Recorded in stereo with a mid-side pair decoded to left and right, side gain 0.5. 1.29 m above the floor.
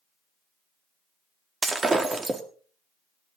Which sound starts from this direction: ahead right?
Breaking glass, at 1.6 s.